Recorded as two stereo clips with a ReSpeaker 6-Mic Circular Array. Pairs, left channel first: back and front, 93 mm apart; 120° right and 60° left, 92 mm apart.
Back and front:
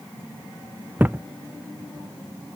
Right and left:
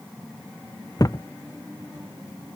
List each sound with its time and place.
1.0 s a thud: 70° right